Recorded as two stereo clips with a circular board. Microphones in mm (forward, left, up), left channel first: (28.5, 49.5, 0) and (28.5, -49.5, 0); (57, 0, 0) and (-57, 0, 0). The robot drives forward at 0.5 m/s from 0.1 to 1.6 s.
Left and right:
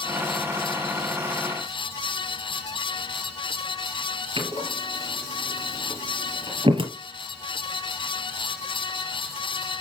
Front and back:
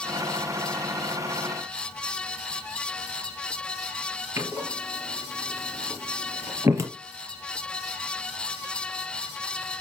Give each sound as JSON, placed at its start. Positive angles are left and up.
{"t": 4.4, "sound": "a door slam", "azimuth_deg": -115, "distance_m": 2.0}